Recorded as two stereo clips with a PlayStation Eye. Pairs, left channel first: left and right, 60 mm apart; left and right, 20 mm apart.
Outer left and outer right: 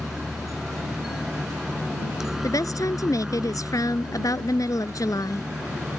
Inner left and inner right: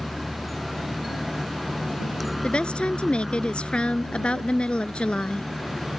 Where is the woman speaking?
70° left (ahead or behind).